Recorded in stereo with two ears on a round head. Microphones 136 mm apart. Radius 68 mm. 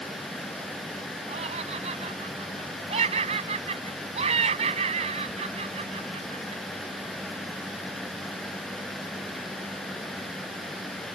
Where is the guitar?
No guitar in this recording.